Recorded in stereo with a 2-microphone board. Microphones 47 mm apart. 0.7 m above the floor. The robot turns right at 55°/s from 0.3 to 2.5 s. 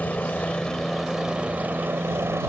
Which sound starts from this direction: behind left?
A helicopter, at 0.0 s.